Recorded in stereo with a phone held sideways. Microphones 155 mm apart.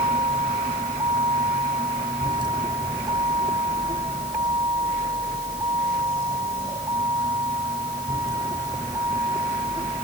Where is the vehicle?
30° right (ahead or behind); by 10.1 s 20° right (ahead or behind).